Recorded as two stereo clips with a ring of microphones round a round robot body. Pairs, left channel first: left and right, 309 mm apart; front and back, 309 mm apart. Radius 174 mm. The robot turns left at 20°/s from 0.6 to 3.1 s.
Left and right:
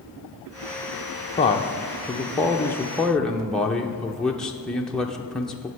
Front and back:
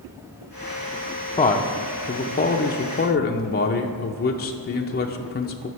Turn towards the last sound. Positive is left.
turn(degrees=5)